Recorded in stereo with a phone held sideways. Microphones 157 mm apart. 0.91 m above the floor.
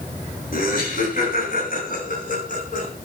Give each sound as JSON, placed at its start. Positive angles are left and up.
{"t": 0.5, "sound": "laughter", "side_deg": 70, "distance_m": 9.5}